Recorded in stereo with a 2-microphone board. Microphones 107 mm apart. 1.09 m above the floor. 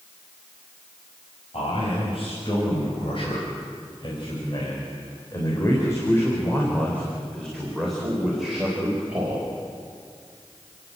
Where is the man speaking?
65° left (ahead or behind), 5.5 m; by 9.6 s 15° right (ahead or behind), 4.5 m.